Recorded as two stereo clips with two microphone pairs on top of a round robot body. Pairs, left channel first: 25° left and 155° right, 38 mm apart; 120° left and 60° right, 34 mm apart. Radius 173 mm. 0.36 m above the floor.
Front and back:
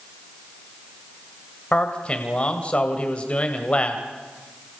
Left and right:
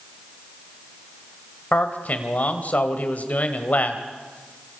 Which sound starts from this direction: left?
A man speaking, at 1.7 s.